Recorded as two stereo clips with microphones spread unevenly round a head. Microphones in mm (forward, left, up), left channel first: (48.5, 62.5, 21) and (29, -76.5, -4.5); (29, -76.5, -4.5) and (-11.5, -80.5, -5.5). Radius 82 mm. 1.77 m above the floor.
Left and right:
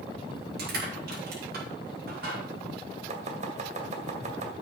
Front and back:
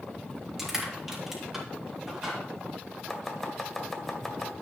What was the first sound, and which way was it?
Crushing, 90° right.